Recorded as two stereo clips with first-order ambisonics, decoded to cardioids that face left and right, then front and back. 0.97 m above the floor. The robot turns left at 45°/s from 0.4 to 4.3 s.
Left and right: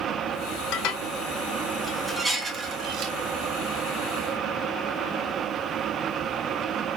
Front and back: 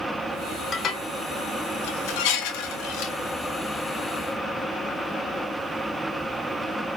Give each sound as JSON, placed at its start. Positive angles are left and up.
{"t": 0.7, "sound": "dishes clattering", "azimuth_deg": 65, "distance_m": 0.9}